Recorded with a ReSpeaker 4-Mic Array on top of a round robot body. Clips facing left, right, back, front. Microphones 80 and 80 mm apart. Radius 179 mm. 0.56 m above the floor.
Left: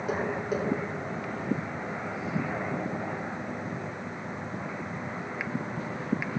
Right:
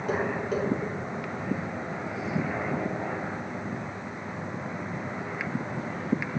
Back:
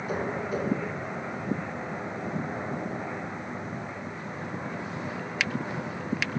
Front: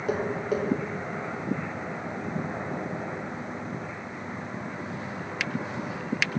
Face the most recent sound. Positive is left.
turn(degrees=5)